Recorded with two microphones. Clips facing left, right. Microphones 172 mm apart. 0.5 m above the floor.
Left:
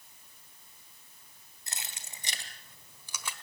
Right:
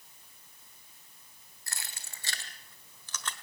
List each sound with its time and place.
1.7 s keys jangling: 20° left (ahead or behind), 2.5 m; by 3.3 s 10° left (ahead or behind), 1.5 m